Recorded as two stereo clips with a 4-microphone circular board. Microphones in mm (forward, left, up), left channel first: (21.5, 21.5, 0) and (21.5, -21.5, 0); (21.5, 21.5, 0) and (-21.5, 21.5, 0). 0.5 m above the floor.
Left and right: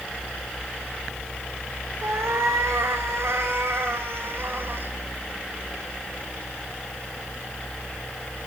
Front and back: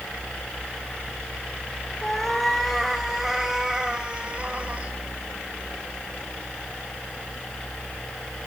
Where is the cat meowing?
85° right, 2.5 m; by 4.9 s 125° right, 2 m.